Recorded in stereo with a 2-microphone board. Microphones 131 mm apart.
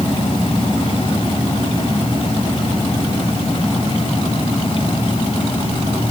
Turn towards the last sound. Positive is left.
No sound to turn to.